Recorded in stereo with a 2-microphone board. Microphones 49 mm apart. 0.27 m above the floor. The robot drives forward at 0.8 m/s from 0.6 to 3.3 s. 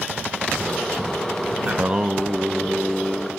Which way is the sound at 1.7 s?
35° right (ahead or behind).